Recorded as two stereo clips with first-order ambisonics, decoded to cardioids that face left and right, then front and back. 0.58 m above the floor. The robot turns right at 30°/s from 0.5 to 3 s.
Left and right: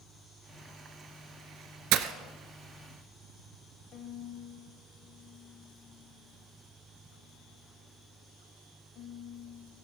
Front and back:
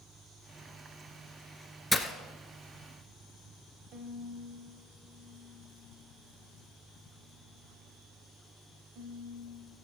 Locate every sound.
1.9 s breaking glass: 80° right, 0.8 m; by 2.1 s 75° right, 0.8 m
3.9 s a violin: 135° left, 1.5 m